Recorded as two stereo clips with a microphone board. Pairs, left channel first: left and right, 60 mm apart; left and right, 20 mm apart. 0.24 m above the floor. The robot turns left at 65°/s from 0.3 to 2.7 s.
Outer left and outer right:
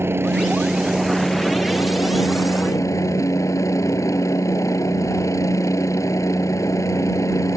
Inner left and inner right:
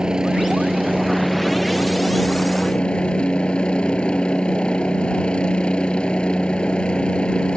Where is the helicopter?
135° right; by 7.6 s 70° left.